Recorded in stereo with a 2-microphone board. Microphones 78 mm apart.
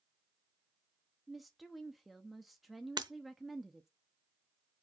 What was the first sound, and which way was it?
A woman speaking, centre (ahead or behind).